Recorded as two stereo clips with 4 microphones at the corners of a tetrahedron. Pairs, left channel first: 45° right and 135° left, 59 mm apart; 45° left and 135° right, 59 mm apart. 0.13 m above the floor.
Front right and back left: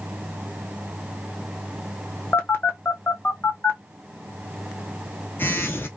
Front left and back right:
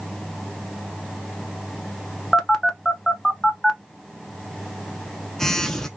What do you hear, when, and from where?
2.3 s a phone buzzing: 35° right, 0.7 m